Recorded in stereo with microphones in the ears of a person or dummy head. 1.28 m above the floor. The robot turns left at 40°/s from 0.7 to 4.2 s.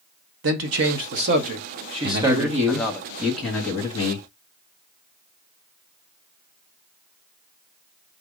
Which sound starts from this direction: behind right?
A man speaking, at 2.0 s.